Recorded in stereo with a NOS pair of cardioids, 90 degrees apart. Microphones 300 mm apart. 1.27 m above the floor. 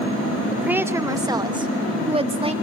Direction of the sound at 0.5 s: Straight ahead.